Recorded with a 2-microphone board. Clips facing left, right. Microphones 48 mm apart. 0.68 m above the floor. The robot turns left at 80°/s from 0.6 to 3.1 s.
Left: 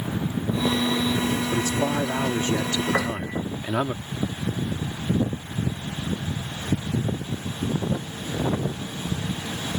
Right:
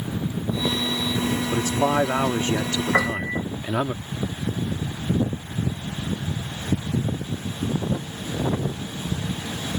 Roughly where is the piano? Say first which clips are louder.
Right 3 dB; right.